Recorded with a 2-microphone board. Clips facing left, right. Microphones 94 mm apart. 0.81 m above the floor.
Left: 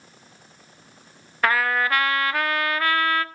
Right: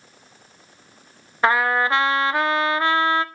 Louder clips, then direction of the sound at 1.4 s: Right 3 dB; 25° right (ahead or behind).